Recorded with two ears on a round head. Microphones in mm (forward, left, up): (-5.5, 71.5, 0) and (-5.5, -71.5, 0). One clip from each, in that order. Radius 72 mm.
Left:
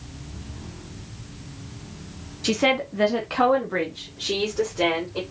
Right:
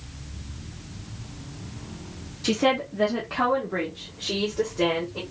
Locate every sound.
2.4 s a woman speaking: 10° left (ahead or behind), 0.7 m; by 5.2 s 70° left (ahead or behind), 2 m